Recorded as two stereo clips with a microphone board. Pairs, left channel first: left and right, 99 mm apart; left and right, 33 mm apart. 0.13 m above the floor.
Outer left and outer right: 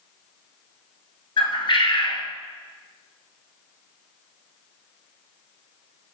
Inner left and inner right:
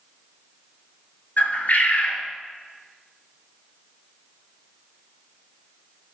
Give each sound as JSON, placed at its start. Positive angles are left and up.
{"t": 1.4, "sound": "a bird", "side_deg": 55, "distance_m": 0.9}